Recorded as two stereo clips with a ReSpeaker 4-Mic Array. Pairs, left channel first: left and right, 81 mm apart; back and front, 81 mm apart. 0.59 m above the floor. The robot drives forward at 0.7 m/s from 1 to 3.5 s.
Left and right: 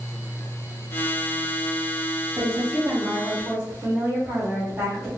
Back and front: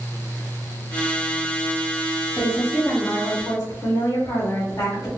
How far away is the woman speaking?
About 1.7 m.